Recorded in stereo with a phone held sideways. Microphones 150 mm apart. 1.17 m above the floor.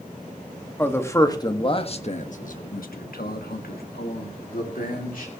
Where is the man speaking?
15° left (ahead or behind), 1.8 m; by 5.3 s 65° left (ahead or behind), 3 m.